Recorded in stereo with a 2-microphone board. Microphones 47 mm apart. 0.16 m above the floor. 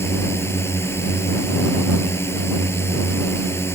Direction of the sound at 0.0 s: 65° left (ahead or behind).